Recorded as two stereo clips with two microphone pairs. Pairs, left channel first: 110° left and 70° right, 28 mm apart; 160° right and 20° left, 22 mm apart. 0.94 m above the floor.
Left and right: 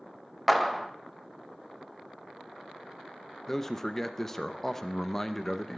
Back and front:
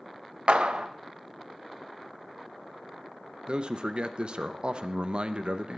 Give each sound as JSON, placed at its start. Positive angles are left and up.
{"t": 0.5, "sound": "a clap", "azimuth_deg": 20, "distance_m": 0.5}
{"t": 3.5, "sound": "a man speaking", "azimuth_deg": 35, "distance_m": 0.5}